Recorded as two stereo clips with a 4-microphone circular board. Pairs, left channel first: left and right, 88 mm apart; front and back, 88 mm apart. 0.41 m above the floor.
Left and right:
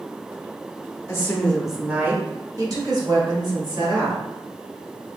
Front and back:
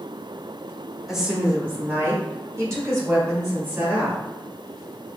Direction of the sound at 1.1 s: 95° left.